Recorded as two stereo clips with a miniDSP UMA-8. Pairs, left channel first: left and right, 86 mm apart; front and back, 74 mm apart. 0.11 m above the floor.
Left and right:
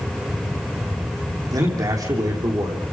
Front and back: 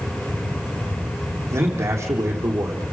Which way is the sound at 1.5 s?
130° right.